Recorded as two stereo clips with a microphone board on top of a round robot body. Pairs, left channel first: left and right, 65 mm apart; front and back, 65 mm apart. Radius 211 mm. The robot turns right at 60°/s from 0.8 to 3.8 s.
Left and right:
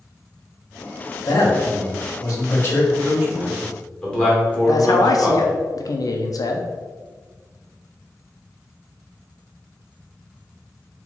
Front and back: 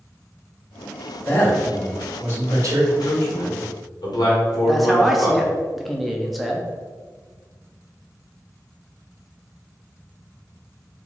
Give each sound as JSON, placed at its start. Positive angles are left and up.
{"t": 1.2, "sound": "a man speaking", "azimuth_deg": 60, "distance_m": 1.3}
{"t": 2.9, "sound": "a man speaking", "azimuth_deg": -35, "distance_m": 1.7}
{"t": 4.7, "sound": "a man speaking", "azimuth_deg": 90, "distance_m": 0.7}